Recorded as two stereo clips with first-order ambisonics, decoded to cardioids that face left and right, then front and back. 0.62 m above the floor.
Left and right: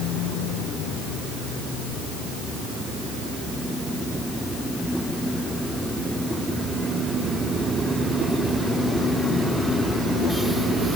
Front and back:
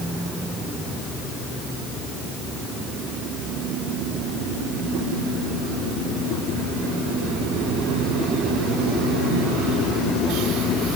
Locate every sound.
Only background noise.